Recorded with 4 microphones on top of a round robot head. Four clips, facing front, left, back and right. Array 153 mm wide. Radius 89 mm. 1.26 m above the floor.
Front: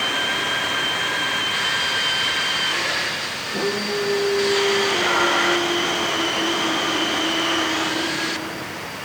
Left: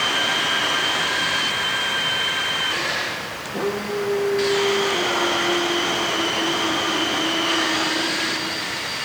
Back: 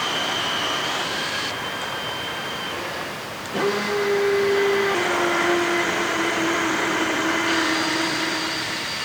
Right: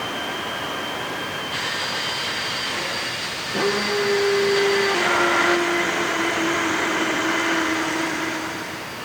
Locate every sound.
Only background noise.